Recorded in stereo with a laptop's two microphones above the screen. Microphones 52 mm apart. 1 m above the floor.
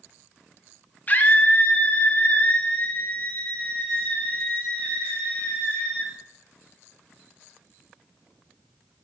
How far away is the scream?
About 1.5 m.